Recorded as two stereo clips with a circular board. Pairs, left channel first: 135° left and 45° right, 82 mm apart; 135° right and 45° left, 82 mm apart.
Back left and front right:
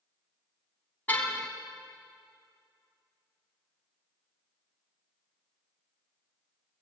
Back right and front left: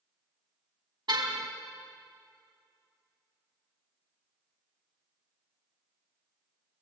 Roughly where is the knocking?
I don't hear knocking.